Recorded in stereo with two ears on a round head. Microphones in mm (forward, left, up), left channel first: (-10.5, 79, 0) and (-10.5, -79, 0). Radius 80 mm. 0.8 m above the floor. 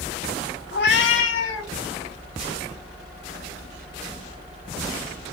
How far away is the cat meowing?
About 0.6 m.